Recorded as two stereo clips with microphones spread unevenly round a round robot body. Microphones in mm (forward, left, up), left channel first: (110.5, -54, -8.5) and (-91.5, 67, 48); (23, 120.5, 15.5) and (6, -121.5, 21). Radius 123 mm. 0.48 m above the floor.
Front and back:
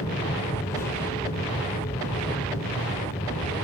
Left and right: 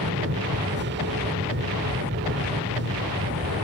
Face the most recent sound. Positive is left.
turn(degrees=-90)